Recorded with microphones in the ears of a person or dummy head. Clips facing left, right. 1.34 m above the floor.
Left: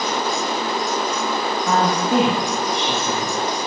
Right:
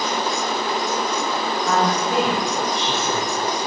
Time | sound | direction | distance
1.7 | a woman speaking | 70° left (ahead or behind) | 1.9 m